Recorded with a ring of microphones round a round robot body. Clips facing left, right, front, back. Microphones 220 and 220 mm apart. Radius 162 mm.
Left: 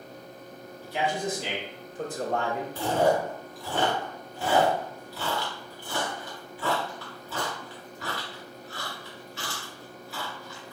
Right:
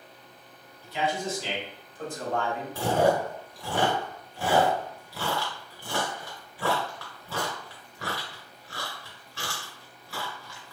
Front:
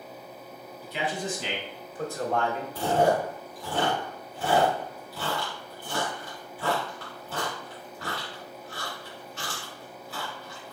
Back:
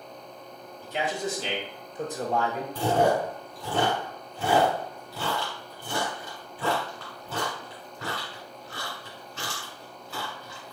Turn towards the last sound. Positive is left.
turn(degrees=-150)